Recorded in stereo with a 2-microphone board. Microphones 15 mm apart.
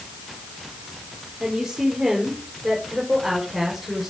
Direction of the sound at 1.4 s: 40° right (ahead or behind).